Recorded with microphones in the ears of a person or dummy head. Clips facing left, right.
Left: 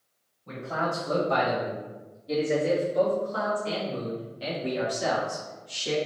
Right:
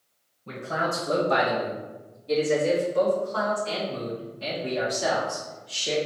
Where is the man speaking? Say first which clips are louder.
Right 1 dB; 35° right (ahead or behind), 1.5 m; by 6.0 s 70° left (ahead or behind), 2 m.